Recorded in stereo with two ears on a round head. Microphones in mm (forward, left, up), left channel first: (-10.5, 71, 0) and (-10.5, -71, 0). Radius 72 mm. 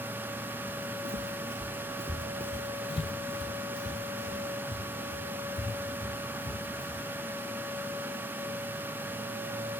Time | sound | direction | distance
0.7 | footsteps | 70° right (ahead or behind) | 0.9 m